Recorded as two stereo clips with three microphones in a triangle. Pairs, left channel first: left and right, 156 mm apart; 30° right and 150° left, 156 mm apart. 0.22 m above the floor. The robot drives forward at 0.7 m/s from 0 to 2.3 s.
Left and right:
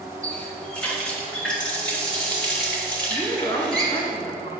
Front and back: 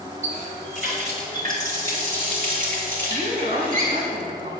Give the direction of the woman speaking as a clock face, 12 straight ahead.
8 o'clock.